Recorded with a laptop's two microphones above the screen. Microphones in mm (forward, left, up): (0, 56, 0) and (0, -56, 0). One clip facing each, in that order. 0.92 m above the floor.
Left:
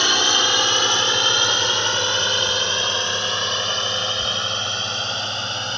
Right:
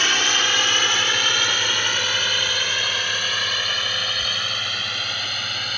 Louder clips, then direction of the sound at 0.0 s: Left 3 dB; 20° left (ahead or behind).